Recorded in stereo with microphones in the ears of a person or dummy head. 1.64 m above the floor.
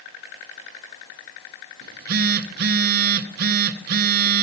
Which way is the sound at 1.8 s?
50° right (ahead or behind).